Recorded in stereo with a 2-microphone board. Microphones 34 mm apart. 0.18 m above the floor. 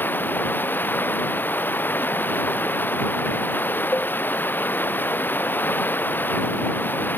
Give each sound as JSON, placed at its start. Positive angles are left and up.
{"t": 0.0, "sound": "running water", "side_deg": 70}
{"t": 3.9, "sound": "a cowbell", "side_deg": 75}